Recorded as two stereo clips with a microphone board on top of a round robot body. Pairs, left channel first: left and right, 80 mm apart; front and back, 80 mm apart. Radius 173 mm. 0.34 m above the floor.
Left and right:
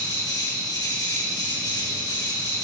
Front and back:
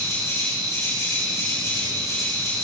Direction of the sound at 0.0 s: 55° left.